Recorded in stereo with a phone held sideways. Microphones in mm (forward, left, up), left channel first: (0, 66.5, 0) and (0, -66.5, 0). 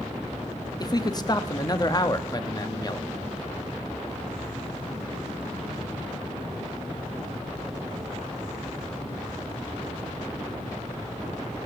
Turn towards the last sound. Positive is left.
turn(degrees=30)  # may be behind; listen again after turning